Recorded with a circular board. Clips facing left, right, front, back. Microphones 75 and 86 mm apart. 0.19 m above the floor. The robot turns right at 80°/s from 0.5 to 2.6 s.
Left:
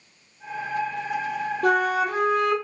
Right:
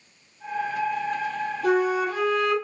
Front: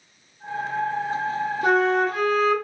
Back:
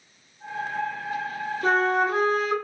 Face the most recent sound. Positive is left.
turn(degrees=155)